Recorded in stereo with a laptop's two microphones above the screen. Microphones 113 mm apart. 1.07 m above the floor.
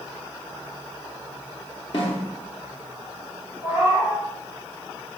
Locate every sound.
1.9 s a snare drum: 50° left (ahead or behind), 0.8 m
3.6 s a cat meowing: 15° right (ahead or behind), 1.9 m